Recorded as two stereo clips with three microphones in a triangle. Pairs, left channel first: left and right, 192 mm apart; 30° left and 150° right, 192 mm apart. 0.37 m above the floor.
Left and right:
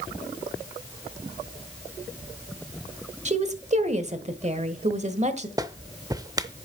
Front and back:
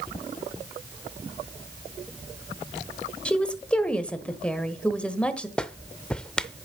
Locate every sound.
3.2 s a woman speaking: 55° right, 1.2 m
5.6 s a clap: 50° right, 0.6 m